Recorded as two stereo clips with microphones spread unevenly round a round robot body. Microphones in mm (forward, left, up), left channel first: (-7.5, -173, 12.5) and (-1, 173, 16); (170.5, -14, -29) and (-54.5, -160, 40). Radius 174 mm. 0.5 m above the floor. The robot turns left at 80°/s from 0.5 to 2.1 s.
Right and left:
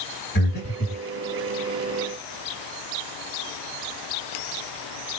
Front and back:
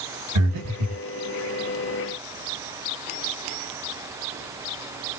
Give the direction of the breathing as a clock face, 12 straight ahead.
5 o'clock.